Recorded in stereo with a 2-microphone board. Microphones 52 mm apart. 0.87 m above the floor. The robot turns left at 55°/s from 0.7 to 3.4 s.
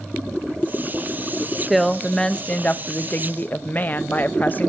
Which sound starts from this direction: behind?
A woman speaking, at 1.7 s.